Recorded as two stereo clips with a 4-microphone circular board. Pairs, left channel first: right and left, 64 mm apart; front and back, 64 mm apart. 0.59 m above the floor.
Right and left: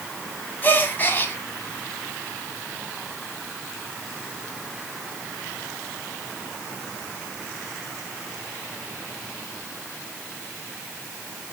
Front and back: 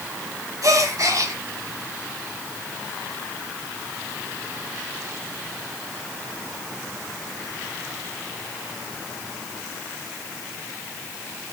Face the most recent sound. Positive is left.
turn(degrees=-150)